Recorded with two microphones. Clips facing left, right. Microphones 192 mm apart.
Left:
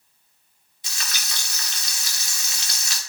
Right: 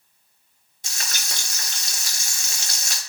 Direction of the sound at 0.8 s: 45° right (ahead or behind).